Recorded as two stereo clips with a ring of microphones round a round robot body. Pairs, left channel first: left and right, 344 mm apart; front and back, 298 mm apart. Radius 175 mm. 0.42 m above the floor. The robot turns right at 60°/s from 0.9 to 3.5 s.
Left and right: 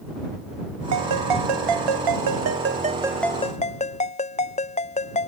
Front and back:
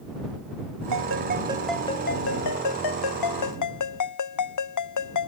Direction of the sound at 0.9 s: 135° right.